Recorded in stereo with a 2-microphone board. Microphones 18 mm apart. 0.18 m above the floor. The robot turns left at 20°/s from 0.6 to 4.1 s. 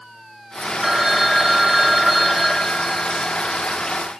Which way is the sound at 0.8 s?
20° right (ahead or behind).